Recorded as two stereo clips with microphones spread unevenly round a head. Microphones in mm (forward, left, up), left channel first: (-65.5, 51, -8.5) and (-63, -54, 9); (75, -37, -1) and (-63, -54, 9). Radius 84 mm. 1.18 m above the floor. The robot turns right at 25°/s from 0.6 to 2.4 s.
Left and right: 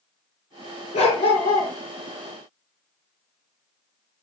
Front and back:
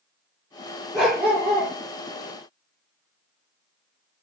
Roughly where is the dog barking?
Left.